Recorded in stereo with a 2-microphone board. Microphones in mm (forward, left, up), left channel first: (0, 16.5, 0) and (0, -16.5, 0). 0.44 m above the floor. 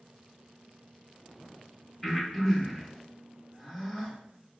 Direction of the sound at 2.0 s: 10° left (ahead or behind).